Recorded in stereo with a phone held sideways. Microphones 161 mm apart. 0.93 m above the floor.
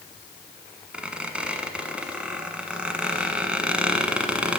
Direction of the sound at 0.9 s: 5° right (ahead or behind).